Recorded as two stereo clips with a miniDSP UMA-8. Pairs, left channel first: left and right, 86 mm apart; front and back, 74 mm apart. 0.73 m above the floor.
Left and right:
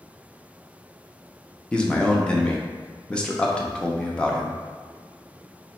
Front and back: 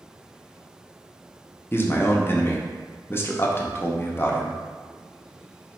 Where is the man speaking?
20° left, 0.6 m.